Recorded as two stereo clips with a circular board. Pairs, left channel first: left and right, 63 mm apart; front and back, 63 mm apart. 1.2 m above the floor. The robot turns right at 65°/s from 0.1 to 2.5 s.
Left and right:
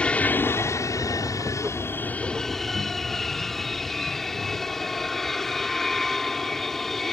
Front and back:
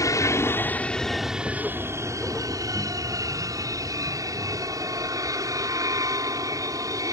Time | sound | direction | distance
0.0 | an aircraft | 20° left | ?